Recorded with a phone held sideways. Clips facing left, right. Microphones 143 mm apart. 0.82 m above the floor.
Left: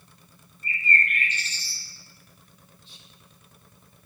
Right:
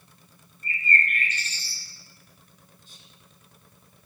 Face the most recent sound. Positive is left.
turn(degrees=-45)  # may be behind; listen again after turning